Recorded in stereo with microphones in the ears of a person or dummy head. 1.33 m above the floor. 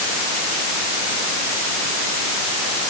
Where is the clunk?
I don't hear a clunk.